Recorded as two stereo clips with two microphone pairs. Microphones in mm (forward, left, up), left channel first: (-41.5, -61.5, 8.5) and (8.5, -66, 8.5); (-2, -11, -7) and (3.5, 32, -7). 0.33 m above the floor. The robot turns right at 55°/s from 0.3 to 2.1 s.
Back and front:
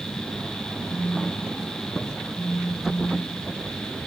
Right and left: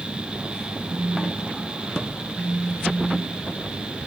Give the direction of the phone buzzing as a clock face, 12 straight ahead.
9 o'clock.